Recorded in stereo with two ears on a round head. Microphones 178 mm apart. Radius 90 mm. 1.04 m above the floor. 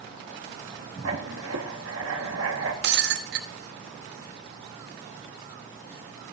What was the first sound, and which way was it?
Writing, 75° right (ahead or behind).